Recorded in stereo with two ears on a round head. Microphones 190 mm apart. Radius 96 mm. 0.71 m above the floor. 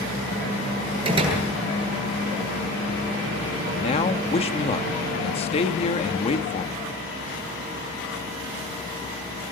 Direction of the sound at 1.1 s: 25° right (ahead or behind).